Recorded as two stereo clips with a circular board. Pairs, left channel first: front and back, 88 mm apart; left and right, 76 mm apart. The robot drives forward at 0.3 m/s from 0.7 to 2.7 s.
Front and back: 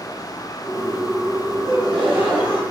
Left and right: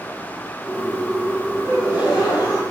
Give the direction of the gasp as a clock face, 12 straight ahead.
8 o'clock.